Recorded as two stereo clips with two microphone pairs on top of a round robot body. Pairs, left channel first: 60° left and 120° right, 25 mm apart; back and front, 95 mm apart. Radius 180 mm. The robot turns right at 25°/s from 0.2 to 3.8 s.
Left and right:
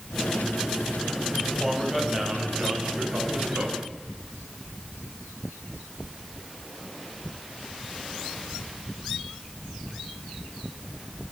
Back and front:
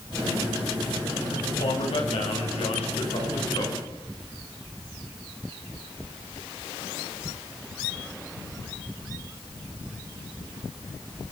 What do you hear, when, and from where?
1.5 s a man speaking: 160° left, 8 m; by 3.8 s 140° right, 8 m